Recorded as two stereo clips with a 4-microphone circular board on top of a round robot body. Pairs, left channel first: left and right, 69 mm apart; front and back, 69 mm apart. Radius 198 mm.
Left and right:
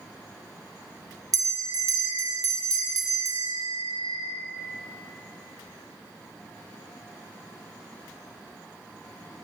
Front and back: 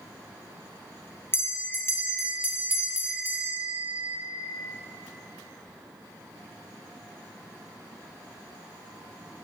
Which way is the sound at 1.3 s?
55° right.